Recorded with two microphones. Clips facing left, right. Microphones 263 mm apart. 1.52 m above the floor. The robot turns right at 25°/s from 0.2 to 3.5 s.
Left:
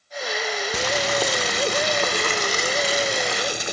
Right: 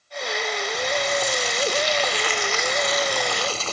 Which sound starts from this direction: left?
Boiling, at 0.7 s.